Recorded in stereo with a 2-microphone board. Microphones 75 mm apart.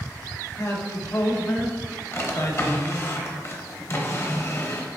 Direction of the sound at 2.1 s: 40° left (ahead or behind).